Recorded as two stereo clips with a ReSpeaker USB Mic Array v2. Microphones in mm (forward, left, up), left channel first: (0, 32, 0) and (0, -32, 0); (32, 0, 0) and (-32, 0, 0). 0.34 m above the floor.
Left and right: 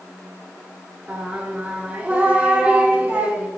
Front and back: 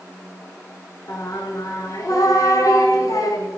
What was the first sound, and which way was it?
Singing, 20° right.